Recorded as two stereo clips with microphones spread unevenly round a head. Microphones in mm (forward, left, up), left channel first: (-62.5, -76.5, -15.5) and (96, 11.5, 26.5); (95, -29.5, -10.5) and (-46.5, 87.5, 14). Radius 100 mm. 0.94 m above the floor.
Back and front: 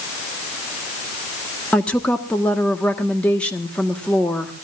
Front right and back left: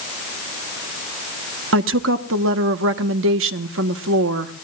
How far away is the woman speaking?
About 1.3 m.